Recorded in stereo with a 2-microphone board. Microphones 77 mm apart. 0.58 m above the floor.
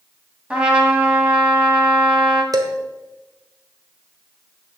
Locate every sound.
0.5 s a trumpet: 15° right (ahead or behind), 1.6 m
2.5 s dishes clattering: 50° right (ahead or behind), 1.2 m